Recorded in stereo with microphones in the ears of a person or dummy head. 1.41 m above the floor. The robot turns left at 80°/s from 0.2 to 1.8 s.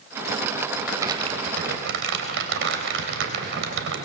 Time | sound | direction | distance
0.8 | crumpling | 5° right | 3.5 m